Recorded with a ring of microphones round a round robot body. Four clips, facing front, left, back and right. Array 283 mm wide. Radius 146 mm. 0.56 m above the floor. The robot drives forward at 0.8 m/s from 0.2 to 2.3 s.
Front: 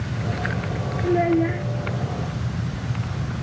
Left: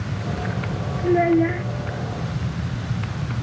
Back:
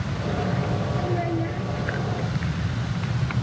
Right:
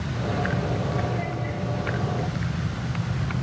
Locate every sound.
1.0 s a child speaking: 60° left; by 1.6 s 65° left